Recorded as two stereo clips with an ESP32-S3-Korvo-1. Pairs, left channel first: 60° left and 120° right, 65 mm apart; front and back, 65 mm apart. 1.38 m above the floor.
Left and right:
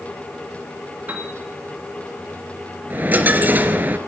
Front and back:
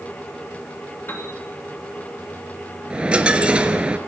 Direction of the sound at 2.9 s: 130° right.